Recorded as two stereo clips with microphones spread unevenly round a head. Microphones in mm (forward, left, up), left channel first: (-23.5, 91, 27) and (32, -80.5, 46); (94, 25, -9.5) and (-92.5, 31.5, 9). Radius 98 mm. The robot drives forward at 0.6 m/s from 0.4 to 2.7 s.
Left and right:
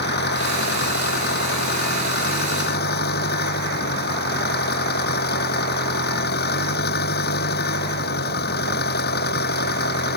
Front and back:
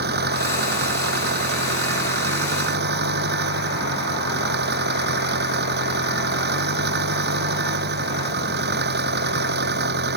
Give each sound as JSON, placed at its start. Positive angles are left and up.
{"t": 0.0, "sound": "an engine running", "azimuth_deg": 145}